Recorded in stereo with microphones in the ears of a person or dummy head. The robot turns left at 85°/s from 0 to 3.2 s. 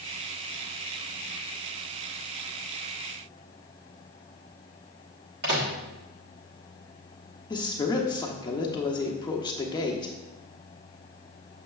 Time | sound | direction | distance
5.4 | a microwave | 50° right (ahead or behind) | 1.2 m
7.5 | a woman speaking | 20° left (ahead or behind) | 0.7 m